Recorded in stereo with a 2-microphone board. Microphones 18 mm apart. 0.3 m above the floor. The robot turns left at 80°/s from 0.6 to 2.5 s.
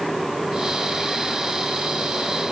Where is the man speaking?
No man speaking in this recording.